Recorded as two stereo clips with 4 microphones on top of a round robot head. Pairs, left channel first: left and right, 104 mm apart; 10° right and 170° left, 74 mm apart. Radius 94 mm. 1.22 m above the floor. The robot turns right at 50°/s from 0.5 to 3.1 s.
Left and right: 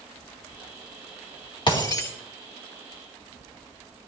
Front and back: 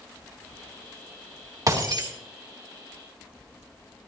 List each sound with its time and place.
1.7 s breaking glass: 130° left, 2.5 m; by 2.1 s 155° left, 2.5 m